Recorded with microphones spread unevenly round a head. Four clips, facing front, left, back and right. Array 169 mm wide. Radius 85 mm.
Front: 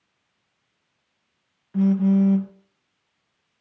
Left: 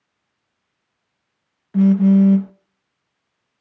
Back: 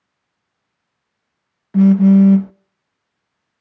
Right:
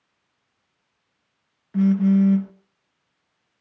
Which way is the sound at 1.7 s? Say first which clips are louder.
Left 5 dB, back 9 dB; 165° left.